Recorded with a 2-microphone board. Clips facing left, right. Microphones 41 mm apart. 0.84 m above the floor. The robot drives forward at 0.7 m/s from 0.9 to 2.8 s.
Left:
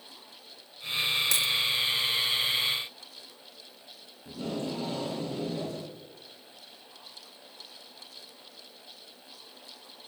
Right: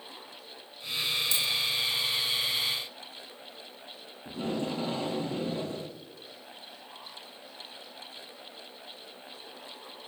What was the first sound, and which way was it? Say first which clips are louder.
A dropped coin: left 2 dB; 60° left (ahead or behind).